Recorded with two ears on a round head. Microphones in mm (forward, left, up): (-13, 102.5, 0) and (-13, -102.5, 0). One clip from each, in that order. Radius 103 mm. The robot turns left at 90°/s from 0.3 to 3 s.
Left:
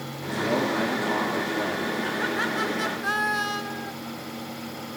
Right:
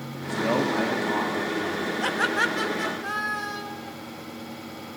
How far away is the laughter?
About 1.4 m.